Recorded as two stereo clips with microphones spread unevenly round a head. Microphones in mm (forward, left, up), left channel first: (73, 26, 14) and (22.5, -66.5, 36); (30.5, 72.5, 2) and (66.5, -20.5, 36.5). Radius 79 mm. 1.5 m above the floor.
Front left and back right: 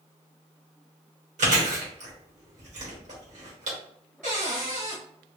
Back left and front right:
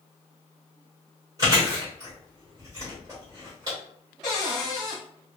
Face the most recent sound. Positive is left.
turn(degrees=-155)